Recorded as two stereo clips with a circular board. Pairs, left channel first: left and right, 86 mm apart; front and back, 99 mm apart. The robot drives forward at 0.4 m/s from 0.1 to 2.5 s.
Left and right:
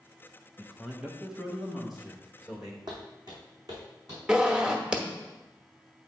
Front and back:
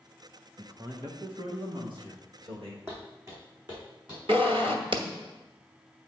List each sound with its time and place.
0.6 s a man speaking: 170° right, 0.9 m; by 2.8 s 175° right, 1.5 m
2.9 s footsteps: 120° right, 3.5 m; by 4.2 s 140° right, 4.5 m
4.3 s a zipper: 165° right, 0.9 m